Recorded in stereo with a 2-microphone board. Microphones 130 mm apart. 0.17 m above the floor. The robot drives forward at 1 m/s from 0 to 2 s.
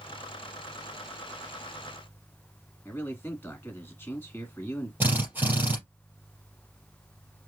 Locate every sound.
2.9 s a man speaking: 20° left (ahead or behind), 1.8 m
5.0 s a drill: 15° right (ahead or behind), 3.5 m